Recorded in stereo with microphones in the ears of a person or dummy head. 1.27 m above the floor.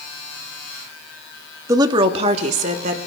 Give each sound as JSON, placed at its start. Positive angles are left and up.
{"t": 1.7, "sound": "a woman speaking", "side_deg": -20, "distance_m": 0.8}